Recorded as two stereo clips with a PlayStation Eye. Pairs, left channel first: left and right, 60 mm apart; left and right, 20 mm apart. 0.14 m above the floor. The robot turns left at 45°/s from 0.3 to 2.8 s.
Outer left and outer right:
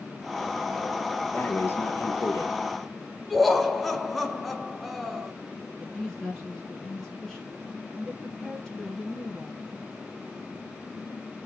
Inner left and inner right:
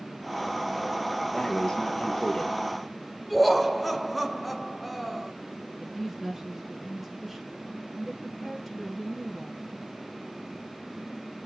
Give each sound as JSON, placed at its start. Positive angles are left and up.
{"t": 1.3, "sound": "breathing", "azimuth_deg": 145, "distance_m": 1.4}
{"t": 3.3, "sound": "laughter", "side_deg": 0, "distance_m": 1.4}
{"t": 5.8, "sound": "a woman speaking", "side_deg": 10, "distance_m": 2.0}